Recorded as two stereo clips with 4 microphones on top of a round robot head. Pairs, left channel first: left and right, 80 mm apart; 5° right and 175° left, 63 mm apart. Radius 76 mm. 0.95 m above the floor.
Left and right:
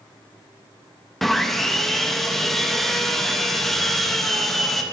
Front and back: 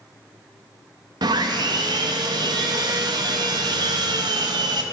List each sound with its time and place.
1.2 s sawing: straight behind, 0.6 m